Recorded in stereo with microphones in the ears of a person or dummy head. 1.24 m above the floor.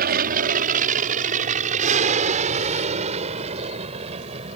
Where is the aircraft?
50° right (ahead or behind); by 4.6 s 35° right (ahead or behind).